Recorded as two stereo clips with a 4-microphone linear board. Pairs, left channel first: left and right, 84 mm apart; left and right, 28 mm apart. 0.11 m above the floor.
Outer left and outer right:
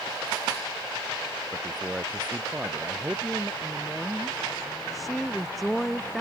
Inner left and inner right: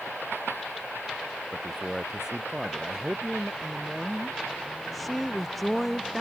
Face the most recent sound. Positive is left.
turn(degrees=0)  # may be behind; listen again after turning